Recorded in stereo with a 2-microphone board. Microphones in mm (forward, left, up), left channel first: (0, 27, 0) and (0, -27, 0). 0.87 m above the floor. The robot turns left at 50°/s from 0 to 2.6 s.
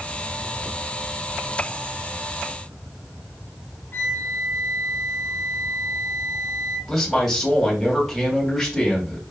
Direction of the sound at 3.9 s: 50° left (ahead or behind).